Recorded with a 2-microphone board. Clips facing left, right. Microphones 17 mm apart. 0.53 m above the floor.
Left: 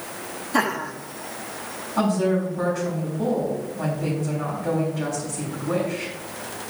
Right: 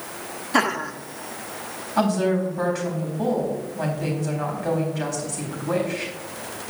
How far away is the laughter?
About 0.9 m.